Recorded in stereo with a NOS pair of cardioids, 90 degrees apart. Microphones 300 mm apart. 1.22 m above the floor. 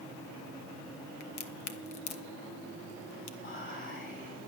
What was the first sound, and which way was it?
A crack, 65° left.